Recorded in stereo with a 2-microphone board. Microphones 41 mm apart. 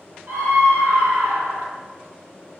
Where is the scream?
65° right (ahead or behind), 1.4 m; by 1.7 s 35° right (ahead or behind), 0.8 m.